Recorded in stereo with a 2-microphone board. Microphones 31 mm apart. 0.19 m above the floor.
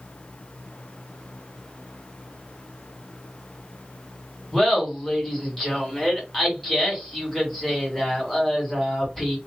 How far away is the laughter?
About 1.9 m.